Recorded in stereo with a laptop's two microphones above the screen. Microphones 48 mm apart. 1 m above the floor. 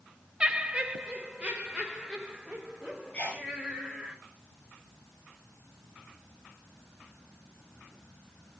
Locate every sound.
0.4 s laughter: 20° right (ahead or behind), 0.5 m; by 4.1 s 15° right (ahead or behind), 2.5 m
3.1 s a sneeze: 35° left (ahead or behind), 5 m